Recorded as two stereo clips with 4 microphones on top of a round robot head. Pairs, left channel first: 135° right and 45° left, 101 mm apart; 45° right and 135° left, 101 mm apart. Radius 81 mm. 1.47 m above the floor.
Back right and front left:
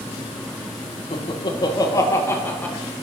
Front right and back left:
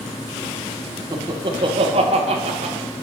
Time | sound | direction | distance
1.1 | laughter | 175° right | 1.4 m